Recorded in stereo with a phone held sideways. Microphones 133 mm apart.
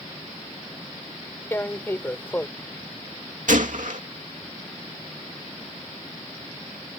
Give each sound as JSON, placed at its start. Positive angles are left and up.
{"t": 1.5, "sound": "tearing paper", "side_deg": 15}
{"t": 3.5, "sound": "a gunshot", "side_deg": -70}